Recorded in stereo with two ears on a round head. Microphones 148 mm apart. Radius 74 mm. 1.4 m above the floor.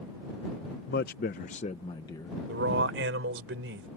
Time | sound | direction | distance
0.9 | a man speaking | 70° left (ahead or behind) | ?
2.5 | a man speaking | 80° right | ?